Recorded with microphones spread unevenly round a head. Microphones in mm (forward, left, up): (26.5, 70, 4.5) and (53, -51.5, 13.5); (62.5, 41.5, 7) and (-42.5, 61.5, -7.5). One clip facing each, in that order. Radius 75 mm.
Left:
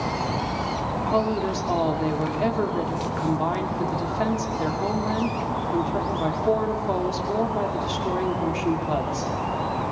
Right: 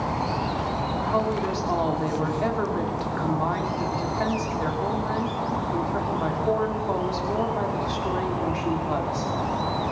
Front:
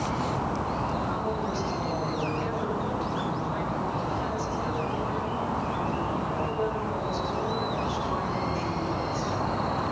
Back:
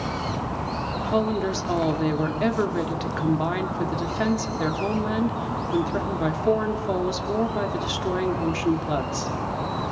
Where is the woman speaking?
Straight behind, 2.5 m.